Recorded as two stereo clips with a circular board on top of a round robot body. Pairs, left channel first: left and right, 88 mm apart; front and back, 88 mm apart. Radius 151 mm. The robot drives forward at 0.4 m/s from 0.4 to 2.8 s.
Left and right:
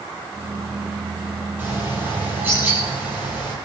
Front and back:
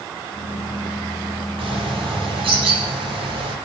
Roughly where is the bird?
Behind.